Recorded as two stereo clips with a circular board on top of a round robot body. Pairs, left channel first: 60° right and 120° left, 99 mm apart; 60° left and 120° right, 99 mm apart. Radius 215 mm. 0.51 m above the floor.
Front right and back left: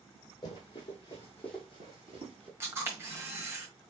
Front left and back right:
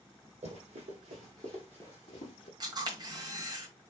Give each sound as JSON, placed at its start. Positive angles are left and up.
{"t": 0.4, "sound": "running footsteps", "azimuth_deg": -105, "distance_m": 1.6}
{"t": 2.6, "sound": "a camera shutter", "azimuth_deg": -170, "distance_m": 1.5}